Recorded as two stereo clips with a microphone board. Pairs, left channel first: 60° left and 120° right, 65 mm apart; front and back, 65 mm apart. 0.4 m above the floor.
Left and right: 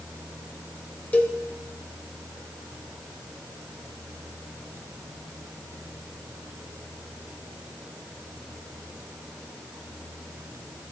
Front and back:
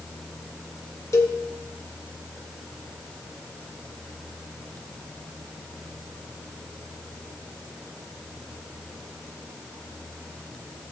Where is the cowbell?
Straight ahead, 1.0 m.